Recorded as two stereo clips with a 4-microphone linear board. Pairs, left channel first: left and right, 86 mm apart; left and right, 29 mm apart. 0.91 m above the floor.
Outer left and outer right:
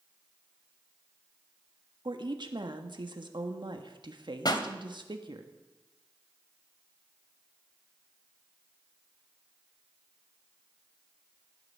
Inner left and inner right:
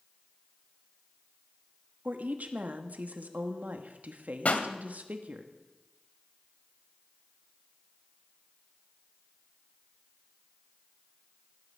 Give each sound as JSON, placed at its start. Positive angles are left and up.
{"t": 2.0, "sound": "a woman speaking", "side_deg": -65, "distance_m": 1.5}
{"t": 4.5, "sound": "a pop", "side_deg": 55, "distance_m": 1.3}